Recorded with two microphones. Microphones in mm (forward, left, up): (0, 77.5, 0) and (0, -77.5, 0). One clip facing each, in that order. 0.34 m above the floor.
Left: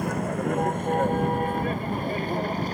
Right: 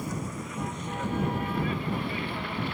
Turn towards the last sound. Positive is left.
turn(degrees=40)  # may be behind; listen again after turning